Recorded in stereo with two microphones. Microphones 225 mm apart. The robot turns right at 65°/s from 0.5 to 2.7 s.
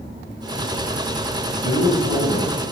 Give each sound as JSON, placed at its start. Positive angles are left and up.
{"t": 1.6, "sound": "a man speaking", "azimuth_deg": 95, "distance_m": 2.0}